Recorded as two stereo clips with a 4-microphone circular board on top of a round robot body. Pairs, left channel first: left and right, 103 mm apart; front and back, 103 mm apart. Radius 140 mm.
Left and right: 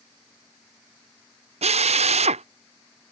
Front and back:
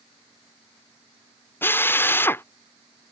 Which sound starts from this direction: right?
A drill, at 1.6 s.